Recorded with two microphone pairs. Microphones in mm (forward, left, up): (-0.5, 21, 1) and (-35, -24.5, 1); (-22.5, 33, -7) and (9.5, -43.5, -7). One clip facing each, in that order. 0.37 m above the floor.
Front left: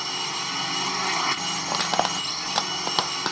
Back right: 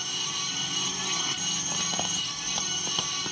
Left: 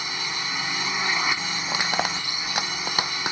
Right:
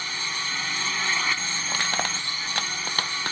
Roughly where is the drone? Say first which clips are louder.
Front left 5 dB, left 1 dB; ahead left.